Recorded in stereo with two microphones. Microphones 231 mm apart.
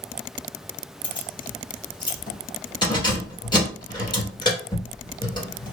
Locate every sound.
1.0 s keys jangling: 20° left (ahead or behind), 1.7 m